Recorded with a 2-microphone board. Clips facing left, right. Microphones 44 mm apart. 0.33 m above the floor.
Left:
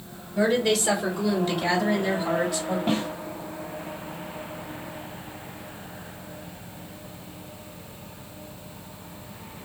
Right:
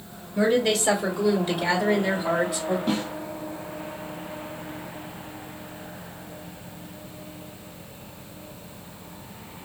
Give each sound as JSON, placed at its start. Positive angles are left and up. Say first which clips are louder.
{"t": 0.3, "sound": "a woman speaking", "louder": "right 1 dB", "side_deg": 0, "distance_m": 1.2}
{"t": 2.9, "sound": "a snare drum", "louder": "left 1 dB", "side_deg": 40, "distance_m": 1.6}